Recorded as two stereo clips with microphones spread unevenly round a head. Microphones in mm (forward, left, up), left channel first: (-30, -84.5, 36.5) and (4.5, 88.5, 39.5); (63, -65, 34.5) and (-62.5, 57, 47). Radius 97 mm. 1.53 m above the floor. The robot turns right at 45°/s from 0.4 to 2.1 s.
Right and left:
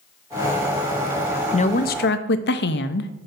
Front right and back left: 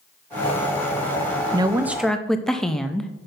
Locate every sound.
1.5 s a woman speaking: 160° right, 0.5 m; by 3.1 s 135° right, 0.5 m